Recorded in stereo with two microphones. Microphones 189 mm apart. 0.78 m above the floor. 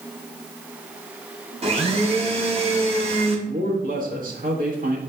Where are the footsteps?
I don't hear footsteps.